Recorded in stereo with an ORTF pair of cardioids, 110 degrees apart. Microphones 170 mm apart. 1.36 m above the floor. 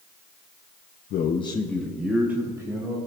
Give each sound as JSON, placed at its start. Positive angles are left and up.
{"t": 1.1, "sound": "a man speaking", "azimuth_deg": 55, "distance_m": 0.6}